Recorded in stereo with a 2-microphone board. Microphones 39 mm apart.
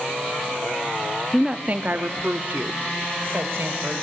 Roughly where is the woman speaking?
Centre.